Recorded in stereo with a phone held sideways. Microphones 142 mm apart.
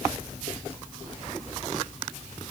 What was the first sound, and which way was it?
Only background noise.